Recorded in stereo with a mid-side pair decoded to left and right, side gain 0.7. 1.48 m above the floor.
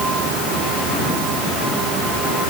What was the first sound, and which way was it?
Only background noise.